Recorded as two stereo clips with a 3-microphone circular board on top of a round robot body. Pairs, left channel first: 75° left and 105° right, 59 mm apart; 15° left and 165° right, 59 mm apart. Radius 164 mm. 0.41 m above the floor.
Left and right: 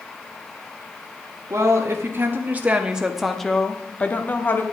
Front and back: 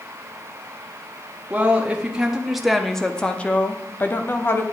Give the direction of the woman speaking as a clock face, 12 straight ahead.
4 o'clock.